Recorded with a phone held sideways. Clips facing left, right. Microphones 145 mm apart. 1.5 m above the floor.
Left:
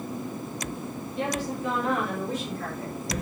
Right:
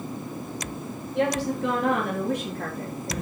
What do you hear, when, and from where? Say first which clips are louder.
1.1 s a woman speaking: right 6 dB; 80° right, 3.5 m; by 3.2 s 50° right (ahead or behind), 3.5 m